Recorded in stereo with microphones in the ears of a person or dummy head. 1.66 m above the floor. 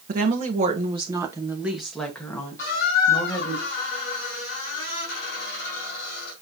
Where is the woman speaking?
50° right (ahead or behind), 2.5 m; by 3.6 s 30° left (ahead or behind), 3 m.